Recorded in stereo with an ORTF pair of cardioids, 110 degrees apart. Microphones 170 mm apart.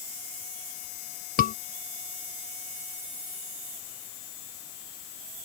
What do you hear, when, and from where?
1.4 s a scream: 60° left